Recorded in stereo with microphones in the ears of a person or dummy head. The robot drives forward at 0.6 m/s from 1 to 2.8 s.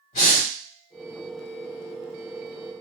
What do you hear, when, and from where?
0.1 s breathing: 40° left (ahead or behind), 1.8 m